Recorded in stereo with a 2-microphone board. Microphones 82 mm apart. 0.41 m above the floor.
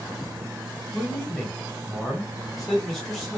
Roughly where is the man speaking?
Centre.